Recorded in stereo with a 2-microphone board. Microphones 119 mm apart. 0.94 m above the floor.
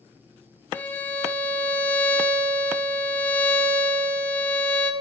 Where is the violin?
15° left (ahead or behind), 0.8 m.